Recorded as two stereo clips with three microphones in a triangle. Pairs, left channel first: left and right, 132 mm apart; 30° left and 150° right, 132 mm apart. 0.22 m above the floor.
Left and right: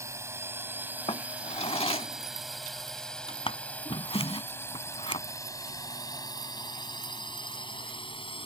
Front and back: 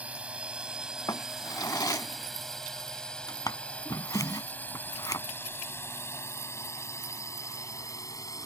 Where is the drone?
90° right; by 8.5 s 80° left.